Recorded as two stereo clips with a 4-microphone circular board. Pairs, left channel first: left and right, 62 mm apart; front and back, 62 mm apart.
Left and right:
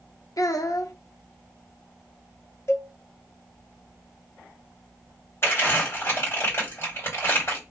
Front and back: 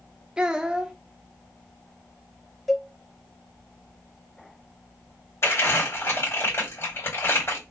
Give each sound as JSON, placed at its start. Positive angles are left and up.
{"t": 0.4, "sound": "a child speaking", "azimuth_deg": 105, "distance_m": 0.6}
{"t": 2.7, "sound": "a cowbell", "azimuth_deg": 85, "distance_m": 0.5}
{"t": 5.4, "sound": "crumpling", "azimuth_deg": 40, "distance_m": 2.5}